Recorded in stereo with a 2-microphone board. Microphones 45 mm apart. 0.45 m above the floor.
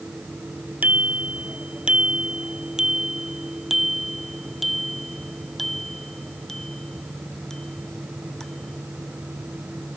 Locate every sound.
0.8 s a bicycle bell: 35° right (ahead or behind); by 10.0 s 15° left (ahead or behind)